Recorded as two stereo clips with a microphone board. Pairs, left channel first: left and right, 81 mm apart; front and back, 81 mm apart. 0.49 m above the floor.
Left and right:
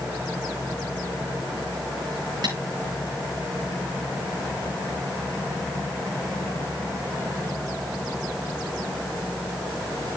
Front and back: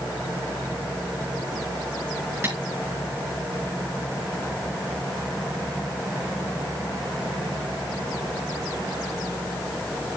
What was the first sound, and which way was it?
Tapping, 120° right.